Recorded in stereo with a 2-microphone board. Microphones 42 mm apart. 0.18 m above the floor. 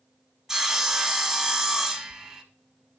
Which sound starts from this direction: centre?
Sawing, at 0.5 s.